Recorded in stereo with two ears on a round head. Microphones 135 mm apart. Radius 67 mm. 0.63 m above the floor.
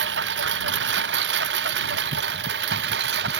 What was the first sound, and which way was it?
A lawn mower, 85° right.